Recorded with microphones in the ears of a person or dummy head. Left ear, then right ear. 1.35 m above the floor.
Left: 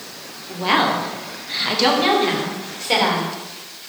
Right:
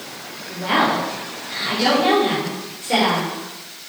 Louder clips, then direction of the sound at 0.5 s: Left 1 dB; 25° left (ahead or behind).